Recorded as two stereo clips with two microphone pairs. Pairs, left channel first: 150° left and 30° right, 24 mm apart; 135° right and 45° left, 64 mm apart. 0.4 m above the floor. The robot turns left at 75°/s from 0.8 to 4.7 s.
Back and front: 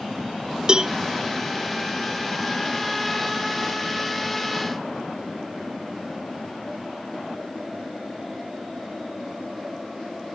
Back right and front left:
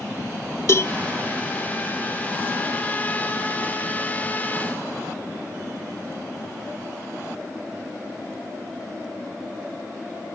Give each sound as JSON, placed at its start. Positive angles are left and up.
{"t": 0.7, "sound": "a cowbell", "azimuth_deg": -90}